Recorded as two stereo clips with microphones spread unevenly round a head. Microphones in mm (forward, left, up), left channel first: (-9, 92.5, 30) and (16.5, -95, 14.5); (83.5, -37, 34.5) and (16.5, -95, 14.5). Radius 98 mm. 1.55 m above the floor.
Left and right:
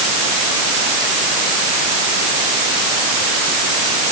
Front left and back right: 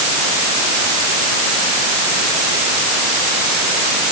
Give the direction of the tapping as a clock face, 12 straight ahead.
No tapping in this recording.